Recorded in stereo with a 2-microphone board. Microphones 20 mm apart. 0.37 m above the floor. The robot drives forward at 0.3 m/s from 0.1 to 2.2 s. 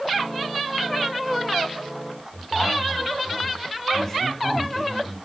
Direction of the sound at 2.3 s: 20° left (ahead or behind).